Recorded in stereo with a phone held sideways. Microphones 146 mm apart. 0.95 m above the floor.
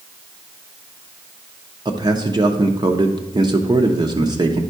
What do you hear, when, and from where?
1.9 s a man speaking: 30° right (ahead or behind), 0.7 m